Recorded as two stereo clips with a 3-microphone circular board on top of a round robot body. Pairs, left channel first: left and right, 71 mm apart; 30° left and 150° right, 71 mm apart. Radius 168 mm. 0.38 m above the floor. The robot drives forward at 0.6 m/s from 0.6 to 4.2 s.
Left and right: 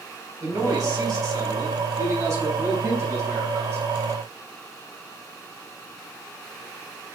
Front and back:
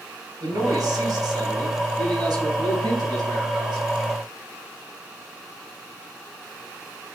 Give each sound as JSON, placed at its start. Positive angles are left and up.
{"t": 0.4, "sound": "a man speaking", "azimuth_deg": -115, "distance_m": 3.5}